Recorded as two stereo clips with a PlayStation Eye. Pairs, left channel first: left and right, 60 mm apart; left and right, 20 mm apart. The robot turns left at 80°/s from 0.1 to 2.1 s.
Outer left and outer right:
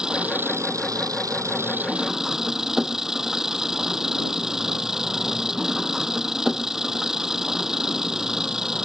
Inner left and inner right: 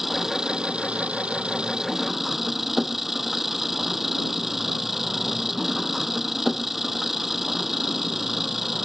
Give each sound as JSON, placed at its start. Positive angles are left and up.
{"t": 0.0, "sound": "an engine running", "azimuth_deg": -15}